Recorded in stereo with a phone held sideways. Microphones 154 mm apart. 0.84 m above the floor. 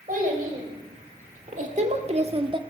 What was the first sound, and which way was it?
A child speaking, 65° right (ahead or behind).